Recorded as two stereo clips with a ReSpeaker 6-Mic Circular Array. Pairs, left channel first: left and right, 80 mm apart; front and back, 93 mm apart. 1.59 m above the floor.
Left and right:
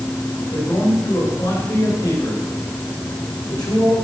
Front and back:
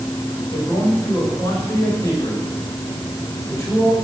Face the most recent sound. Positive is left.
turn(degrees=55)